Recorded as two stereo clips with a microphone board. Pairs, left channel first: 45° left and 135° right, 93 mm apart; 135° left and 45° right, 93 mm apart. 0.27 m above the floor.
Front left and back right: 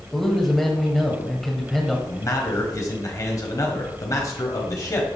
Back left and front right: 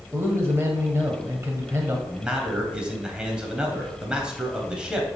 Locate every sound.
0.1 s a man speaking: 40° right, 1.4 m
2.1 s a man speaking: 30° left, 1.6 m